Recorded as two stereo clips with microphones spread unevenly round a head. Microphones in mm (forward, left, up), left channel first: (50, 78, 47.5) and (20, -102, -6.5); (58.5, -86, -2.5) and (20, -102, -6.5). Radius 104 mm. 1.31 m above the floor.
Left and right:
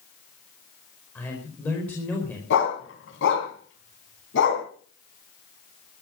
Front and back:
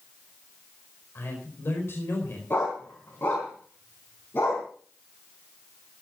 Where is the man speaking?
Straight ahead, 4.5 m.